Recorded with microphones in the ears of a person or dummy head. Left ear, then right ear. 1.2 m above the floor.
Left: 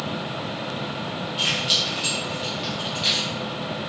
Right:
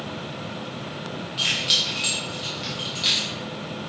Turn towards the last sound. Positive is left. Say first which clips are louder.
# even
turn(degrees=5)  # may be behind; listen again after turning